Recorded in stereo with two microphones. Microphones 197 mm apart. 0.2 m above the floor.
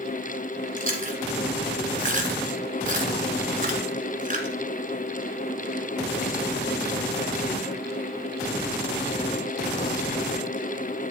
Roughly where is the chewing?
Right.